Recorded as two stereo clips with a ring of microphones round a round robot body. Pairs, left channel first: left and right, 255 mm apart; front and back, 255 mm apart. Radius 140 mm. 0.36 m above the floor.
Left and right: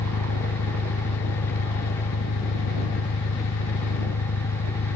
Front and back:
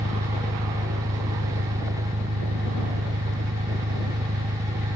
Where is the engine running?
115° left.